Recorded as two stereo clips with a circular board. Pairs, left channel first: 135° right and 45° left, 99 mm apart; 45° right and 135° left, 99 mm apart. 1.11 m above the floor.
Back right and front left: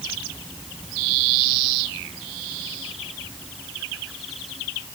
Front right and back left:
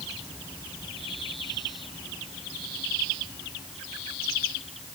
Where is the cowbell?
I don't hear a cowbell.